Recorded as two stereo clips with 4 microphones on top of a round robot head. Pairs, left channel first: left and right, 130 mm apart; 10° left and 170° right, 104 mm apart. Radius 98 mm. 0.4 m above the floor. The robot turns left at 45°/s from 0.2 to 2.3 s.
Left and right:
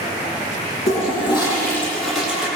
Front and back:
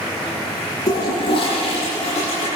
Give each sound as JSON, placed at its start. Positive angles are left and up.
{"t": 0.9, "sound": "a toilet flushing", "azimuth_deg": 60, "distance_m": 10.0}